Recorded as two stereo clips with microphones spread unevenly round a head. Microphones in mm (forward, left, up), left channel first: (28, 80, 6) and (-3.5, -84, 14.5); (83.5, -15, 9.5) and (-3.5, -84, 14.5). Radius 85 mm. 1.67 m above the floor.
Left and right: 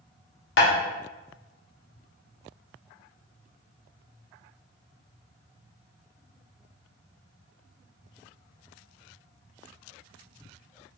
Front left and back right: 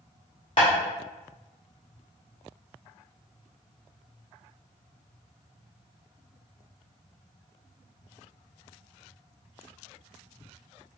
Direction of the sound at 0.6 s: 100° left.